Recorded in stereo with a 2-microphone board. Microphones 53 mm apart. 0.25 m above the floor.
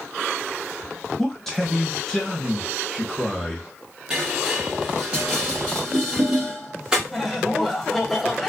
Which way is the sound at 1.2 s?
5° left (ahead or behind).